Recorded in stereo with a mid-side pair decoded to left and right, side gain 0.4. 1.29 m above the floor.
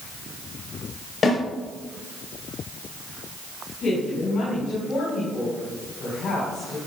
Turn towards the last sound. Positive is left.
turn(degrees=65)